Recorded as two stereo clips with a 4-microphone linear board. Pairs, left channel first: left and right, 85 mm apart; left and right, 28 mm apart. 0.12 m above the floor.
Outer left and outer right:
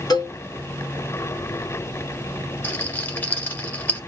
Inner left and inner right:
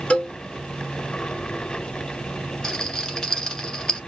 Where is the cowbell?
55° left (ahead or behind), 1.5 m.